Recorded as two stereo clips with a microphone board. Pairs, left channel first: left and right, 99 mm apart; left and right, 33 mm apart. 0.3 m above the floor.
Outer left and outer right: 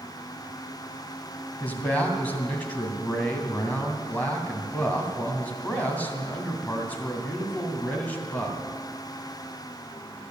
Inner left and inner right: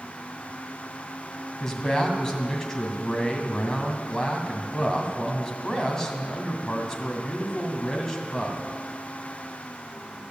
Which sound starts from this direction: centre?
A man speaking, at 1.6 s.